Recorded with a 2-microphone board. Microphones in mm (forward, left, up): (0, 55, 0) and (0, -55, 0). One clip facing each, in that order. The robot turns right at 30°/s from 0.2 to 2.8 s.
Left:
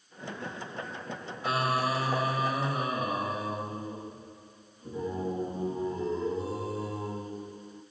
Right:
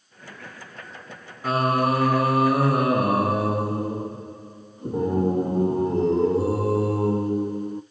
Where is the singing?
135° right, 0.6 m; by 7.8 s 95° right, 0.6 m.